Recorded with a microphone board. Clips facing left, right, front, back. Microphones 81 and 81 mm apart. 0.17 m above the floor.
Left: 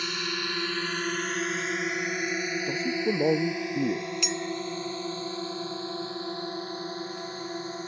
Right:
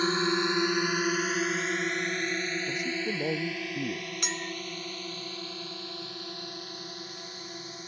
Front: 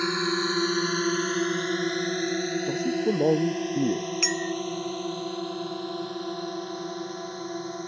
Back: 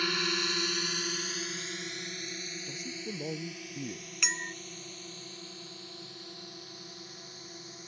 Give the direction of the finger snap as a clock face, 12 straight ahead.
No finger snap in this recording.